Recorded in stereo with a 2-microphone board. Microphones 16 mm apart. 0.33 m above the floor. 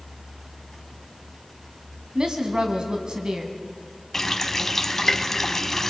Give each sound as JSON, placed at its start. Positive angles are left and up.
{"t": 2.1, "sound": "a woman speaking", "side_deg": -65, "distance_m": 2.0}
{"t": 4.1, "sound": "a running tap", "side_deg": 15, "distance_m": 1.5}